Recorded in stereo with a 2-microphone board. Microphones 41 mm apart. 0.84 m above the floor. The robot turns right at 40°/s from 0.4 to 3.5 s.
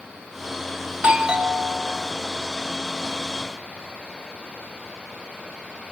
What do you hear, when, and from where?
0.9 s a doorbell: 60° right, 0.8 m; by 2.1 s 15° right, 0.8 m